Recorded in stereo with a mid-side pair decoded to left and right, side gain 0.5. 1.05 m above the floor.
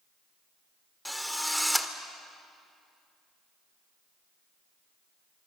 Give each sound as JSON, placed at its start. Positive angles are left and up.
{"t": 1.1, "sound": "a drill", "azimuth_deg": 0, "distance_m": 2.0}